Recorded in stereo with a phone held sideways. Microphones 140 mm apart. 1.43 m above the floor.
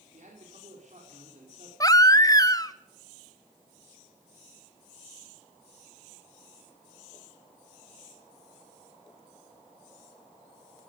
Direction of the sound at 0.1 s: 60° right (ahead or behind).